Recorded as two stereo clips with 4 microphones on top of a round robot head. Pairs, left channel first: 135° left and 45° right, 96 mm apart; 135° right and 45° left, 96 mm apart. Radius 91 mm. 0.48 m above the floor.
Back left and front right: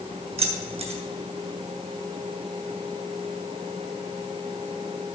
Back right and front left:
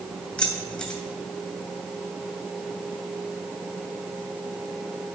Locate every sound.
0.4 s keys jangling: 50° right, 2.5 m